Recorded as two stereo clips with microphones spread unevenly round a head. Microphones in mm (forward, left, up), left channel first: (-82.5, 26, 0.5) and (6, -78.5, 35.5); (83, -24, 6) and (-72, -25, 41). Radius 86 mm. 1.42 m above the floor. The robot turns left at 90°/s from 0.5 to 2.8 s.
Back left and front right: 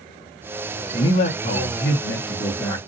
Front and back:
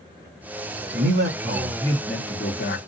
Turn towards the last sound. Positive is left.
turn(degrees=35)